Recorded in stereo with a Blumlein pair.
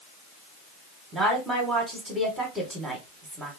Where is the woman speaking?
15° right, 1.0 m.